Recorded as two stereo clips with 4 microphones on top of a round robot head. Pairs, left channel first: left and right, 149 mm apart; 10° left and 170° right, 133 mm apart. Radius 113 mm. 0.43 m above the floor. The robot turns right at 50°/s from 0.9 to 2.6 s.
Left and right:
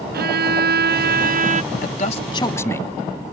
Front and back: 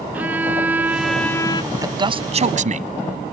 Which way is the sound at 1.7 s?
120° left.